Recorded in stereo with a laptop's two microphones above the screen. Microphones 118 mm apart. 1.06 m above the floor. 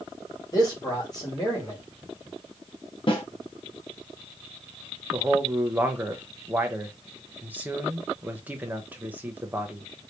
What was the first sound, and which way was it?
A man speaking, 35° left (ahead or behind).